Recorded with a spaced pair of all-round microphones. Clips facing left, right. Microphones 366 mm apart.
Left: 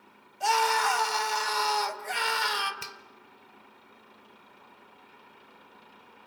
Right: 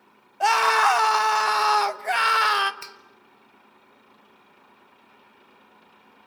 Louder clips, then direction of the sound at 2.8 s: Even; 45° left (ahead or behind).